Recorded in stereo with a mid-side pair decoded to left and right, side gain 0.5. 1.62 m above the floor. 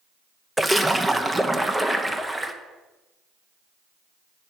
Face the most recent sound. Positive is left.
turn(degrees=-10)